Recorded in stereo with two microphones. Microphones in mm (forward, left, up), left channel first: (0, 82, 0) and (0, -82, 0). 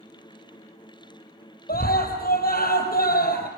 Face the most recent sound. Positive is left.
turn(degrees=70)  # may be behind; listen again after turning